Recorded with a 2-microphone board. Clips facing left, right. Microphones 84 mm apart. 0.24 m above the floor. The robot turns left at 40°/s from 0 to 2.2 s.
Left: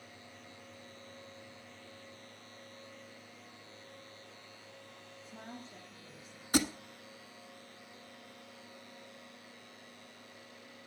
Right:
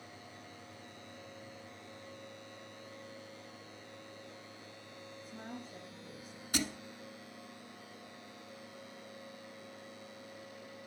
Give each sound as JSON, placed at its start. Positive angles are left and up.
{"t": 5.2, "sound": "a woman speaking", "side_deg": -15, "distance_m": 7.0}
{"t": 6.5, "sound": "a thud", "side_deg": 40, "distance_m": 1.3}